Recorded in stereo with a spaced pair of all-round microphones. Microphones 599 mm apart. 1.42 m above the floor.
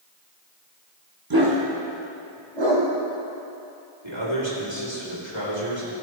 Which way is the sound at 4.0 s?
45° right (ahead or behind).